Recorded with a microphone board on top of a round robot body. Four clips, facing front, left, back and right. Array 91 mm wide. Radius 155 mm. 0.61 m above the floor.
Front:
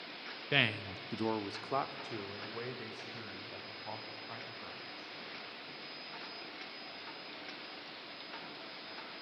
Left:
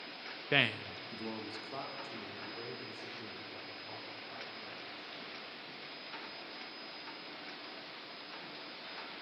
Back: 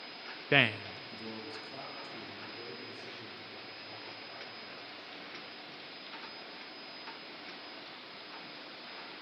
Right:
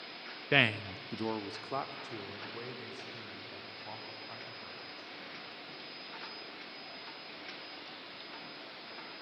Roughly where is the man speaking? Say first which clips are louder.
Right 4 dB, back 5 dB; behind.